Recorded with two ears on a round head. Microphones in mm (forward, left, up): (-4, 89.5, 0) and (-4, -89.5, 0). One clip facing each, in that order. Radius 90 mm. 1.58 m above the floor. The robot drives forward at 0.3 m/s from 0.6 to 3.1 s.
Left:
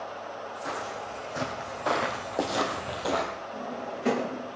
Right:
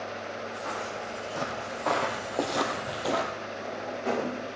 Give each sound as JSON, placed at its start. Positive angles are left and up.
{"t": 0.7, "sound": "footsteps", "side_deg": 15, "distance_m": 3.5}
{"t": 3.5, "sound": "a drawer", "side_deg": 45, "distance_m": 4.0}